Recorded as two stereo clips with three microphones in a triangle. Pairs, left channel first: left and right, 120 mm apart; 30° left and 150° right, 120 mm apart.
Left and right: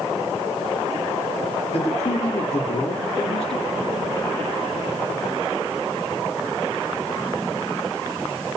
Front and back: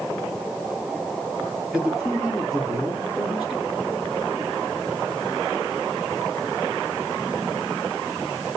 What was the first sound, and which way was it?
A man speaking, 120° left.